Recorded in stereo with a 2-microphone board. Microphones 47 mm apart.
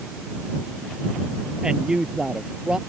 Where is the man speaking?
15° right (ahead or behind).